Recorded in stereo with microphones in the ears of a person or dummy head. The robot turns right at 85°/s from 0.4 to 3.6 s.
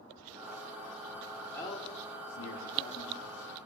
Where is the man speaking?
5° left (ahead or behind), 4.5 m; by 3.7 s 5° right (ahead or behind), 4.5 m.